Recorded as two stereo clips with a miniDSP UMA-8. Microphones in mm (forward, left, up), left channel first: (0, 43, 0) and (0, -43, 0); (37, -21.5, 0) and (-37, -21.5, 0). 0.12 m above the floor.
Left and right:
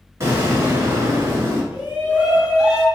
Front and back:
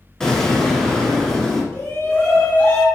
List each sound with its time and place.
0.2 s an explosion: 75° right, 1.4 m
1.7 s a shout: 20° right, 1.6 m